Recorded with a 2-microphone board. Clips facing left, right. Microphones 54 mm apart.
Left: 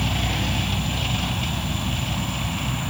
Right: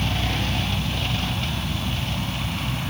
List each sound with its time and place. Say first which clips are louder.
0.0 s an insect: even; 10° left (ahead or behind)